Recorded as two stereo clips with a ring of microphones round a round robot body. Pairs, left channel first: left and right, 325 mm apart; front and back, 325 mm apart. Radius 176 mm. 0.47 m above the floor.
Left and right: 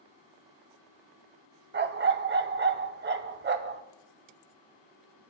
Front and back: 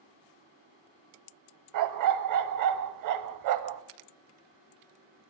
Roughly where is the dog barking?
Behind right.